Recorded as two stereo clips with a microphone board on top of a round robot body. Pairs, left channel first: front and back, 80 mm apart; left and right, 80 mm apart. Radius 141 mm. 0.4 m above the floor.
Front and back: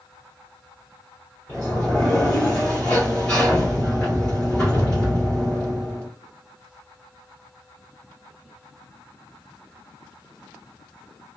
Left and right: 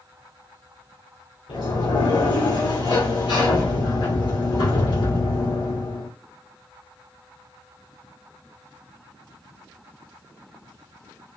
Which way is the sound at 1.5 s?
75° left.